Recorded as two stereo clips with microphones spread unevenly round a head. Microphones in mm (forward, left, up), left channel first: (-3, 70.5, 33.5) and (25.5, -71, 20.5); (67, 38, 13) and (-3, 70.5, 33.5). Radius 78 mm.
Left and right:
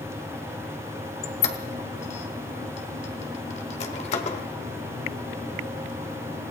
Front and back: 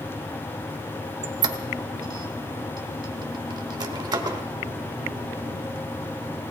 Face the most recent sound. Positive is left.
turn(degrees=145)